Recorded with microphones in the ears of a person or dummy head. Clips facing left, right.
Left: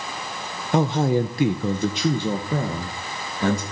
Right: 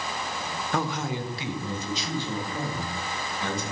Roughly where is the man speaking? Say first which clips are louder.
Left 10 dB; centre.